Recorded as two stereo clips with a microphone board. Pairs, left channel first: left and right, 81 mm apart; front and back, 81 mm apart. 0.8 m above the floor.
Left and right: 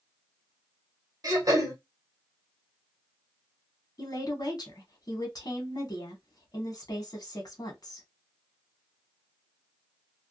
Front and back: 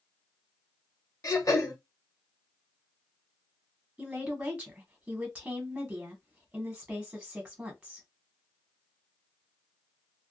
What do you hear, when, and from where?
1.2 s throat clearing: 45° right, 1.1 m
4.0 s a woman speaking: 105° left, 1.1 m